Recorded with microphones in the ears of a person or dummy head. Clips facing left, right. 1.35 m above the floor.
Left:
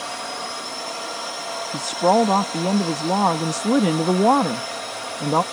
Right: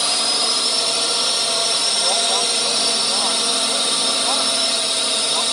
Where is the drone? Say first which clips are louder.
Right 5 dB; 50° right (ahead or behind).